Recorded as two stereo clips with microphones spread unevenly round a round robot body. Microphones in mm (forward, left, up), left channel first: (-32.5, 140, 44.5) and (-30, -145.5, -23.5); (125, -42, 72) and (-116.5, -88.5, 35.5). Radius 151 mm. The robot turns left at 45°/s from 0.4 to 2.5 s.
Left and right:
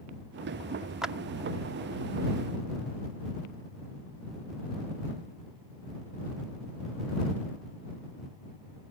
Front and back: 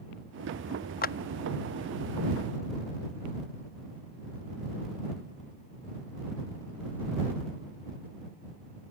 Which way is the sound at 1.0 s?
25° right.